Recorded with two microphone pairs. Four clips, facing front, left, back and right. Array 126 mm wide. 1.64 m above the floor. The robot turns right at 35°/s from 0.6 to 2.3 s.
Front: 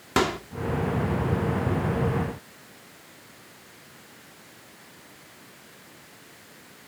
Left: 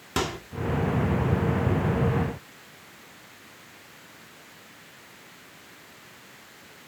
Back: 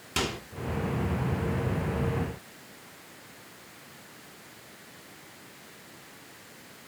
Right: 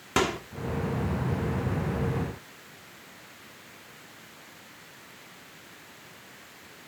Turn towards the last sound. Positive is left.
turn(degrees=40)